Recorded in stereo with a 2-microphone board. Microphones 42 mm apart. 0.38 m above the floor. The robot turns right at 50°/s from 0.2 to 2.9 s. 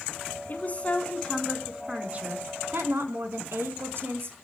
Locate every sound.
0.5 s a woman speaking: 135° left, 4 m; by 4.3 s 105° right, 4 m